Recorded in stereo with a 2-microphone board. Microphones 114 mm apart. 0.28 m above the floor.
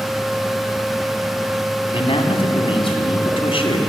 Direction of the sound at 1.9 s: 55° left (ahead or behind).